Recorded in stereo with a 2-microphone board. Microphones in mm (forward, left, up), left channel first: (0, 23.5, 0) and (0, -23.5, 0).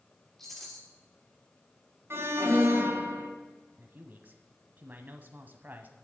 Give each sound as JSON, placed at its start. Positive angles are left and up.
{"t": 0.4, "sound": "a rattle", "side_deg": 5, "distance_m": 3.5}
{"t": 2.1, "sound": "an alarm", "side_deg": -60, "distance_m": 2.5}
{"t": 3.8, "sound": "a man speaking", "side_deg": -40, "distance_m": 1.3}